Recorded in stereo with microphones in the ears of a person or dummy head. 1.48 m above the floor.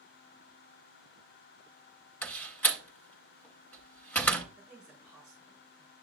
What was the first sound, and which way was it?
A door slam, 10° left (ahead or behind).